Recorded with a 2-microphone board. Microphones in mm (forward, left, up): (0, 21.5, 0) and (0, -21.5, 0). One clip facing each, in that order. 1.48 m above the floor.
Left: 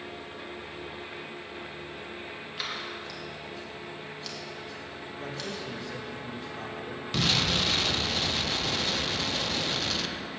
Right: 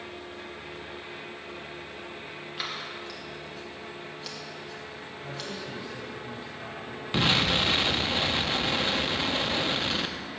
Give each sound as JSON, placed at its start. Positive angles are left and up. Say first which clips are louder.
{"t": 2.6, "sound": "scissors", "louder": "even", "side_deg": -5, "distance_m": 1.9}
{"t": 5.2, "sound": "a man speaking", "louder": "left 1 dB", "side_deg": 75, "distance_m": 2.5}
{"t": 7.1, "sound": "an explosion", "louder": "right 3 dB", "side_deg": -20, "distance_m": 0.6}